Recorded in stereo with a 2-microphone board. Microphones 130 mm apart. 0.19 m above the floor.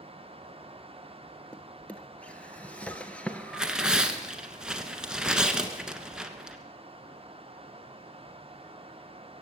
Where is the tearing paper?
5° right (ahead or behind), 1.2 m.